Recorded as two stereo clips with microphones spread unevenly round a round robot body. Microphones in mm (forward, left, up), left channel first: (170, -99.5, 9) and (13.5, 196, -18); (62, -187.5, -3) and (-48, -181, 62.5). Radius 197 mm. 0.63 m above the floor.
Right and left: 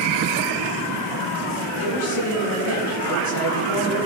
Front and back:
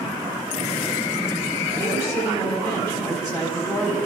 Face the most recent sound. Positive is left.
turn(degrees=-60)